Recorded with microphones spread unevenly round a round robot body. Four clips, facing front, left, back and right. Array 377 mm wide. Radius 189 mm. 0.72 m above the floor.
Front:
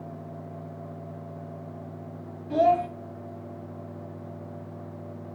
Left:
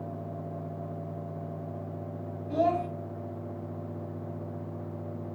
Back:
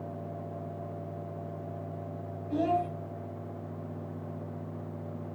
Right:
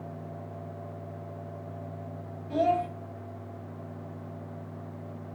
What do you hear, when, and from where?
2.5 s a child speaking: 10° right, 4.5 m